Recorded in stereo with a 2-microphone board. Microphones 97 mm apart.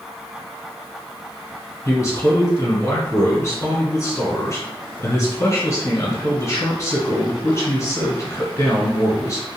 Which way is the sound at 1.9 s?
35° left (ahead or behind).